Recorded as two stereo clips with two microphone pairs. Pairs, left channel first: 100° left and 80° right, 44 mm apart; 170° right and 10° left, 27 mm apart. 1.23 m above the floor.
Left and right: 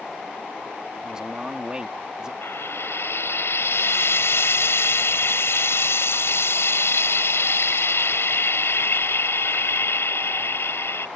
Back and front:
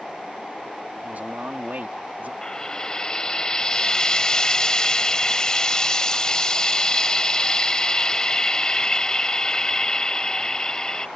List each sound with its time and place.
1.0 s a man speaking: 5° right
2.4 s frying: 125° left